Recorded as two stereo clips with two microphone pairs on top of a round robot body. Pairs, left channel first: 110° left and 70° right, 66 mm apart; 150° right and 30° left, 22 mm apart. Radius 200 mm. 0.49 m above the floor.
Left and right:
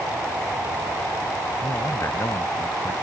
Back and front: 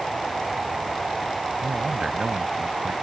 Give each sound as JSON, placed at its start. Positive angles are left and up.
{"t": 1.6, "sound": "a man speaking", "azimuth_deg": 70}